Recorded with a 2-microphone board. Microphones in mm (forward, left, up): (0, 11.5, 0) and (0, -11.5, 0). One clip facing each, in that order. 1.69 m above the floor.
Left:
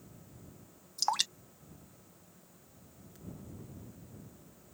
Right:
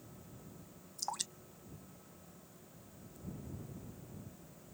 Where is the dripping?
90° left.